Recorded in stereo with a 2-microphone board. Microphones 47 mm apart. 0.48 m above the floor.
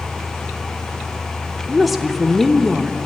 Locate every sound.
1.7 s a woman speaking: centre (ahead or behind), 0.7 m